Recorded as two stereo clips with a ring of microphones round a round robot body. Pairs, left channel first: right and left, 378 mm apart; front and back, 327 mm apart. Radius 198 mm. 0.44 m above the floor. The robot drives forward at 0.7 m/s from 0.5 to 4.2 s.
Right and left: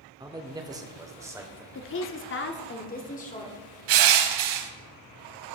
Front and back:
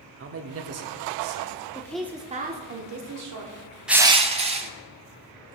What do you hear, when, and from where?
0.2 s a man speaking: 165° left, 1.0 m; by 1.6 s 175° left, 1.6 m
1.8 s a woman speaking: 65° right, 0.8 m; by 3.6 s 160° right, 1.3 m
3.9 s crushing: 90° left, 0.8 m; by 4.7 s 105° left, 0.9 m